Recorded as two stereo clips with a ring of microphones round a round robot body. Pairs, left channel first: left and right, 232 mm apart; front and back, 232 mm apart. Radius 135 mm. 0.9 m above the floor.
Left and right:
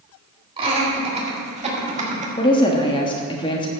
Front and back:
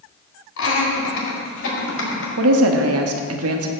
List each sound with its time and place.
0.6 s laughter: 25° right, 4.5 m; by 2.3 s 30° right, 5.5 m
2.4 s a woman speaking: 160° left, 1.3 m